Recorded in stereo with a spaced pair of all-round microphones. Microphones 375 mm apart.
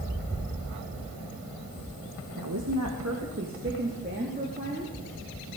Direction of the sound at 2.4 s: 60° right (ahead or behind).